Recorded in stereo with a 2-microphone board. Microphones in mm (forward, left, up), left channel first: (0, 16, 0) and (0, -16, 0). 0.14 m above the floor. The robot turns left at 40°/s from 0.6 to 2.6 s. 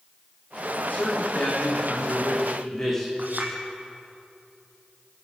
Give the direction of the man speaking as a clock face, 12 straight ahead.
9 o'clock.